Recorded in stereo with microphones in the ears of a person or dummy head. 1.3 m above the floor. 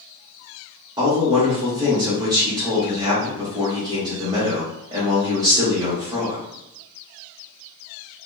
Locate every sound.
1.0 s a man speaking: 15° right (ahead or behind), 1.2 m